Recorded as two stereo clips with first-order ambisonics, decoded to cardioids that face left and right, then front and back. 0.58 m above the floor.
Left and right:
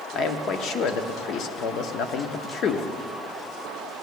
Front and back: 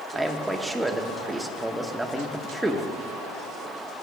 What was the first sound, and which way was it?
A man speaking, 100° left.